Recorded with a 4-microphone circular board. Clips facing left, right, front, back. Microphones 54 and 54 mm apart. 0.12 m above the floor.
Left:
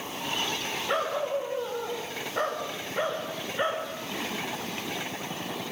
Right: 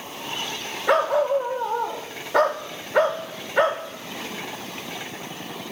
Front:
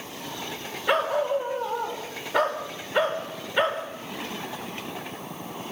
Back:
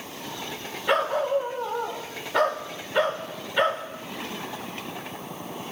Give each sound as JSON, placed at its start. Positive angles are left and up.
{"t": 0.9, "sound": "a dog barking", "azimuth_deg": -80, "distance_m": 4.0}